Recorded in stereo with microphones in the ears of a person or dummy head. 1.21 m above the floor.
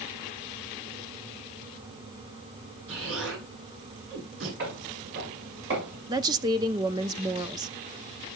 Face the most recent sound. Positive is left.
turn(degrees=-20)  # may be behind; listen again after turning